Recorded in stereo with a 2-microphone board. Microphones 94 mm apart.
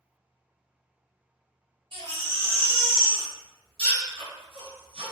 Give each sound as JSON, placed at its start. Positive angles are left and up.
{"t": 1.9, "sound": "a baby crying", "side_deg": -60, "distance_m": 0.8}